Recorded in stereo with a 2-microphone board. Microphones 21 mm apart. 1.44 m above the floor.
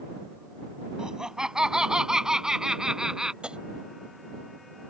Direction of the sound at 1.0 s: 30° right (ahead or behind).